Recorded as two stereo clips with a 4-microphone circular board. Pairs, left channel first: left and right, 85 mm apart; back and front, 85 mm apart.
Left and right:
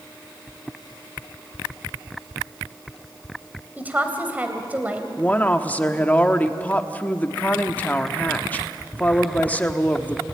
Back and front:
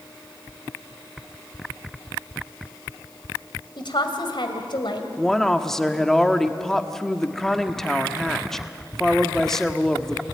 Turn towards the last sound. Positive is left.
turn(degrees=100)